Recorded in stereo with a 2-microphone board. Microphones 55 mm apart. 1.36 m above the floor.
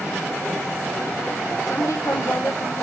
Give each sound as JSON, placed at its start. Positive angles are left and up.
{"t": 1.7, "sound": "a woman speaking", "side_deg": 85, "distance_m": 3.0}